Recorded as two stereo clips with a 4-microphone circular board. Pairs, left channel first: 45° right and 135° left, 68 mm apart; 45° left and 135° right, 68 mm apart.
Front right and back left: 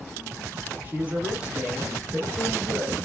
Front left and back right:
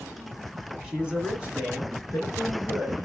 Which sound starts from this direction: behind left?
A man speaking, at 0.8 s.